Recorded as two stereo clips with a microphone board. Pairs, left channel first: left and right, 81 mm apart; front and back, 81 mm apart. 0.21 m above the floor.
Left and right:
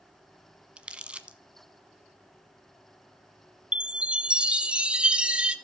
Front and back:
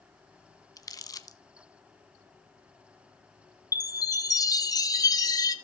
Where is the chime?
20° right, 0.9 m.